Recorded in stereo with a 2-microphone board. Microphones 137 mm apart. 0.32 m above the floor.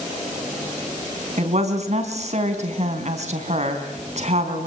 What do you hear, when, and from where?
1.4 s a woman speaking: 55° right (ahead or behind), 3.5 m